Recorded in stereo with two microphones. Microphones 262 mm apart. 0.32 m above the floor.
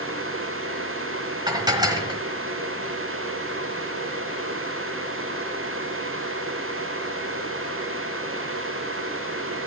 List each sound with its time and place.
1.5 s dishes clattering: 15° right (ahead or behind), 1.3 m